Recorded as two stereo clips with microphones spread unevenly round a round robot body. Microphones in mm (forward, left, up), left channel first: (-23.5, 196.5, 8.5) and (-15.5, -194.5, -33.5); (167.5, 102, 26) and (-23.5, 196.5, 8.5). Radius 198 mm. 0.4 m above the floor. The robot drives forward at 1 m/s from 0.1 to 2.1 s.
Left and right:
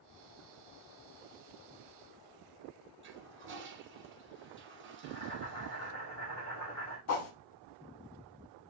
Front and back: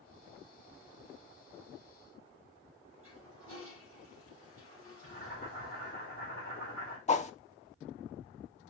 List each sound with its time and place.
3.0 s a toilet flushing: 150° right, 1.3 m
5.0 s boiling: 150° left, 3.5 m
7.1 s a whoosh: 35° left, 0.8 m